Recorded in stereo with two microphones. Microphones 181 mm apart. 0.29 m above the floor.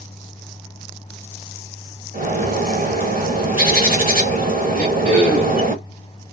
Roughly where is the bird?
Right.